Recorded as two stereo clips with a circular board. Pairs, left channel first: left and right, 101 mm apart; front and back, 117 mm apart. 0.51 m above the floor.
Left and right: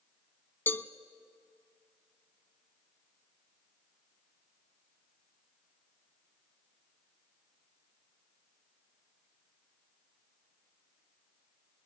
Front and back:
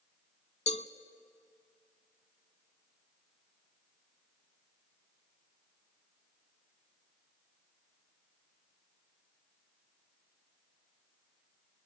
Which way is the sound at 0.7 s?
20° left.